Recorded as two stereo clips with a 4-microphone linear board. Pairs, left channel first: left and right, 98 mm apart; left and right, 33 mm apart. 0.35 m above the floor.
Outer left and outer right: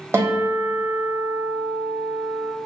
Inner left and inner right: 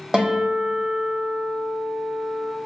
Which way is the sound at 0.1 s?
25° right (ahead or behind).